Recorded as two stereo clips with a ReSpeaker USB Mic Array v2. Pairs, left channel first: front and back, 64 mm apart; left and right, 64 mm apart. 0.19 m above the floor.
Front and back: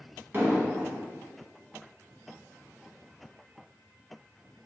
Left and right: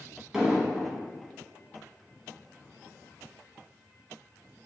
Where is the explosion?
165° right, 1.1 m.